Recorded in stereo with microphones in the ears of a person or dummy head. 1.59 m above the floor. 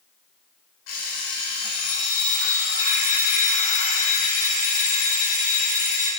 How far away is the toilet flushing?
I don't hear a toilet flushing.